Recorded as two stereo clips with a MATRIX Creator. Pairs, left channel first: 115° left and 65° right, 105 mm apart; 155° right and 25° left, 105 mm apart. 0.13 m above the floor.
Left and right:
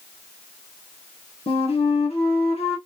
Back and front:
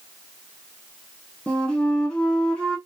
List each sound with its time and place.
1.5 s a flute: 125° left, 1.5 m